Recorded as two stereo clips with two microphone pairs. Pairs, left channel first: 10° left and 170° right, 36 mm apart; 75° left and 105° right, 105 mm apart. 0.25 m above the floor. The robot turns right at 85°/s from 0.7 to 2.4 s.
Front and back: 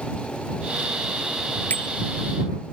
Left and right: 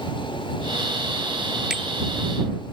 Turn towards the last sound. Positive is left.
turn(degrees=40)